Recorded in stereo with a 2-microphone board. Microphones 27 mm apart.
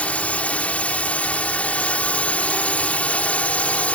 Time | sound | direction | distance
0.0 | a drone | 60° left (ahead or behind) | ?